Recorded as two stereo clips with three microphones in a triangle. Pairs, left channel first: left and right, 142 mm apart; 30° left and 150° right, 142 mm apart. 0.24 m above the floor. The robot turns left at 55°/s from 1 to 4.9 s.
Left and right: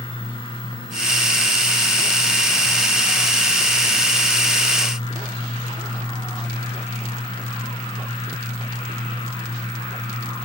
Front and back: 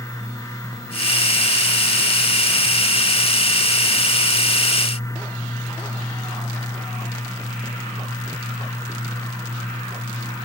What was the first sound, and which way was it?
Only background noise.